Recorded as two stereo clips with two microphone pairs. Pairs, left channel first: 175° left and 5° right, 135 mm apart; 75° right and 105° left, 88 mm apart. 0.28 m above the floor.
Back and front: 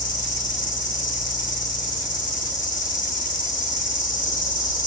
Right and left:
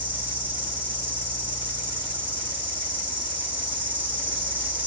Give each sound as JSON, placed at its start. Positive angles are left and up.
{"t": 0.0, "sound": "an insect", "azimuth_deg": 175, "distance_m": 6.5}